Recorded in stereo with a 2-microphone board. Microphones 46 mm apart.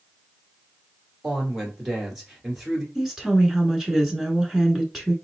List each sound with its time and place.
1.2 s a woman speaking: 5° right (ahead or behind), 1.8 m
3.0 s a woman speaking: 10° right (ahead or behind), 1.1 m